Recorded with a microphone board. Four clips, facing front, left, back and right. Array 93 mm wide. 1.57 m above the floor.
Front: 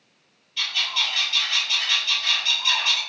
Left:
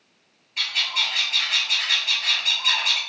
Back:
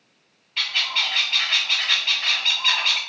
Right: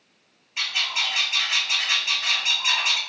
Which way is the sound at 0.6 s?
160° right.